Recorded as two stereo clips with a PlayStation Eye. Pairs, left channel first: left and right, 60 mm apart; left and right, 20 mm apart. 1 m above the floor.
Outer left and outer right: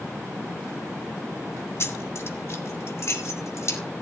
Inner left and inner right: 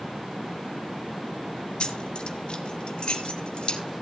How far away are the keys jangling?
About 1.5 m.